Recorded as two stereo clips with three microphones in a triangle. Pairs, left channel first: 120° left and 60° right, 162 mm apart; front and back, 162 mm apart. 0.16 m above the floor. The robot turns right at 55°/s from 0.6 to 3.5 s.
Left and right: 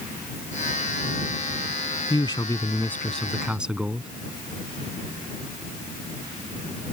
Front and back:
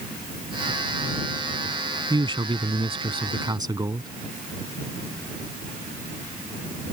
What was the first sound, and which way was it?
A man speaking, 145° left.